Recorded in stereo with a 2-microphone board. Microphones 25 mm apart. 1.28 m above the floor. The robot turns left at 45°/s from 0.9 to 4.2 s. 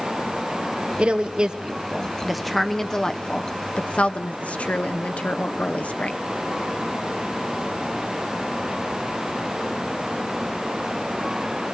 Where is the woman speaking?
55° right (ahead or behind), 0.6 m; by 6.2 s 55° left (ahead or behind), 0.6 m.